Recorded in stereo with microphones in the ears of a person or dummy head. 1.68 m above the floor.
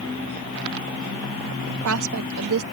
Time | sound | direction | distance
1.7 | a woman speaking | 85° right | ?